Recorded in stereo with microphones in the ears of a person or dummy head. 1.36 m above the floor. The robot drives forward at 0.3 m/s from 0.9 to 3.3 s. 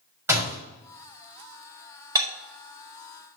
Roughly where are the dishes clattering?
Centre.